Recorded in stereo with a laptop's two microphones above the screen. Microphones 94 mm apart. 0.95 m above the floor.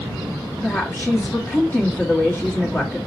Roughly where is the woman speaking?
Left.